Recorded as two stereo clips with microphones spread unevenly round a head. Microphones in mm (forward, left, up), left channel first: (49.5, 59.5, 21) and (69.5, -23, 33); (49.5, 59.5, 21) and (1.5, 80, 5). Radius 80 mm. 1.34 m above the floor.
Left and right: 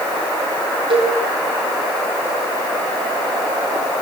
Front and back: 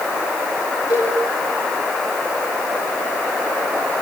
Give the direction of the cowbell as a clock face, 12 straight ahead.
2 o'clock.